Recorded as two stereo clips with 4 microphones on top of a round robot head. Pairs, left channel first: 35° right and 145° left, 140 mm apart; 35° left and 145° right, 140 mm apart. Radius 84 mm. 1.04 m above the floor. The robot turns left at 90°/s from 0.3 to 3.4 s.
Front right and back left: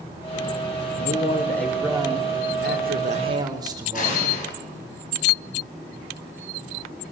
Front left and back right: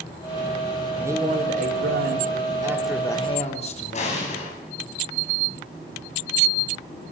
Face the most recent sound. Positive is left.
turn(degrees=-5)